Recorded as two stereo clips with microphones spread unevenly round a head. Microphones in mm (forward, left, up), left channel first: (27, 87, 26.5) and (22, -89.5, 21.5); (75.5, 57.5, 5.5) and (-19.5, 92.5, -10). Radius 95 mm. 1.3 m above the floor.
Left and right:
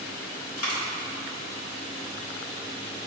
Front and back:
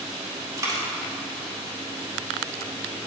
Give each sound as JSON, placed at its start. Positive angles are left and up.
{"t": 0.6, "sound": "a dropped coin", "azimuth_deg": 100, "distance_m": 2.0}